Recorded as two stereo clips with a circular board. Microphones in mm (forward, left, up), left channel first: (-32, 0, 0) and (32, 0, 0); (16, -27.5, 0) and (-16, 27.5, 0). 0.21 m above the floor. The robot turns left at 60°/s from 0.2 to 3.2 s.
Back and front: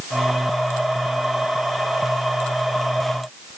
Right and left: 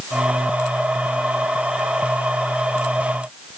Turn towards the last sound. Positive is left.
No sound to turn to.